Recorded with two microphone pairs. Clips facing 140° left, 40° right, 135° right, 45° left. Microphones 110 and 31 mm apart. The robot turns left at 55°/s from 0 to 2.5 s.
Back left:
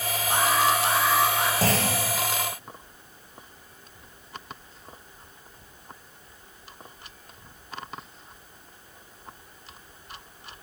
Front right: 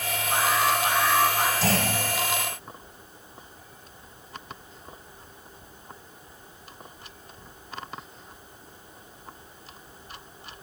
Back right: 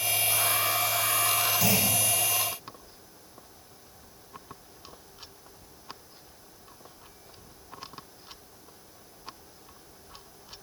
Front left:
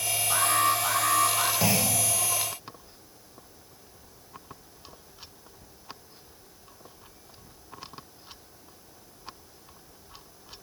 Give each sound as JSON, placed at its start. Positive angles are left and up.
{"t": 0.3, "sound": "an alarm", "azimuth_deg": 110, "distance_m": 4.0}
{"t": 1.6, "sound": "a clunk", "azimuth_deg": 105, "distance_m": 8.5}